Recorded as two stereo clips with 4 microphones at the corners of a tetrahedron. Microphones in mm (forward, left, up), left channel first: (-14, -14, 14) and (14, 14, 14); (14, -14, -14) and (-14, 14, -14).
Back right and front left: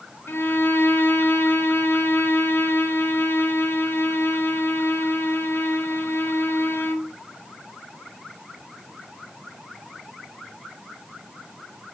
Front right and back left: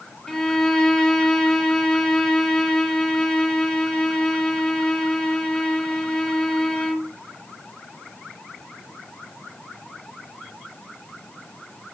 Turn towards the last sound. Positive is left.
turn(degrees=-115)